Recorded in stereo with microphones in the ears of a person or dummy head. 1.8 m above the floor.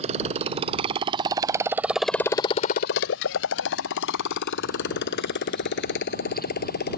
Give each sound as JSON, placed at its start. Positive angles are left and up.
{"t": 0.0, "sound": "a motorcycle", "side_deg": -35}